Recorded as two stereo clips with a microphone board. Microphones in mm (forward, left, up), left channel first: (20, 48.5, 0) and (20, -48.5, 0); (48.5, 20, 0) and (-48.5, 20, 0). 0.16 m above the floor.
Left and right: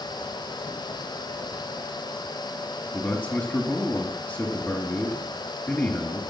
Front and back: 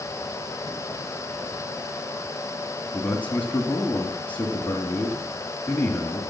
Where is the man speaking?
50° left, 1.5 m.